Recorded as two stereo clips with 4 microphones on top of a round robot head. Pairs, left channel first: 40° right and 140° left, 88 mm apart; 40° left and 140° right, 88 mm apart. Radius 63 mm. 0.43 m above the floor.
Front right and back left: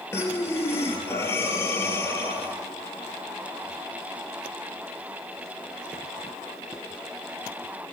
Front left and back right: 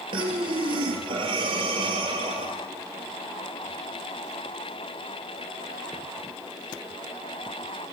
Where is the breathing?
105° right, 2 m.